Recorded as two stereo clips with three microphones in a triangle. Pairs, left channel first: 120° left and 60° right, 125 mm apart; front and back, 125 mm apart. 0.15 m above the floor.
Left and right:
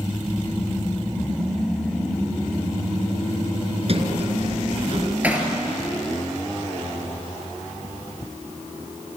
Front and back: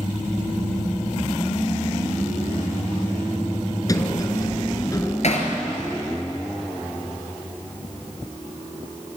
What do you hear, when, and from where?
3.9 s a sliding door: 55° right, 1.8 m
5.2 s hammering: 15° left, 2.5 m